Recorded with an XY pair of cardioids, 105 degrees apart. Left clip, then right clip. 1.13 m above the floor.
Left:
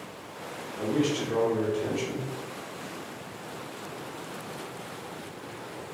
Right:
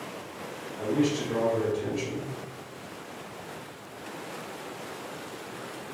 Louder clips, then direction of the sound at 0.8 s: Even; 35° left.